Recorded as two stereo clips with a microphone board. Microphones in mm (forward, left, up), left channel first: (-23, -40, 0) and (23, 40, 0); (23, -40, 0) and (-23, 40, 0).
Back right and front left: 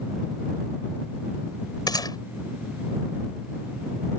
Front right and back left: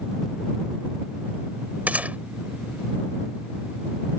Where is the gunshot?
165° right.